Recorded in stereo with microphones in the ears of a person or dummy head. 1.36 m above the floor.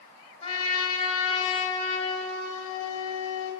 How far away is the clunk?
No clunk in this recording.